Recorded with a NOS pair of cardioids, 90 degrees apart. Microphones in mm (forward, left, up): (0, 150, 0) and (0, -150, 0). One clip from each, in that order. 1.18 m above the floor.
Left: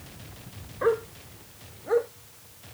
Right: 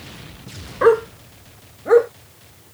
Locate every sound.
0.8 s a dog barking: 70° right; by 2.1 s 75° right